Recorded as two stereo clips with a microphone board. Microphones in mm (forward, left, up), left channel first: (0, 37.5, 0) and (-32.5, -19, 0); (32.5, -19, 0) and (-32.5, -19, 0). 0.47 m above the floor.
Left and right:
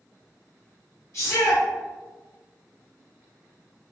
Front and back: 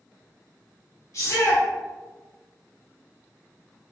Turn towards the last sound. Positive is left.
turn(degrees=30)